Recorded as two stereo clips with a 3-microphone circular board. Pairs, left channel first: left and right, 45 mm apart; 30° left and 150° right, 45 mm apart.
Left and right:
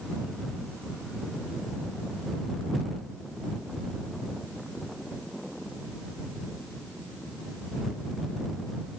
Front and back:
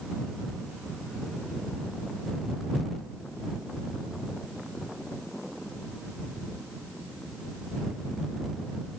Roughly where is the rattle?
No rattle in this recording.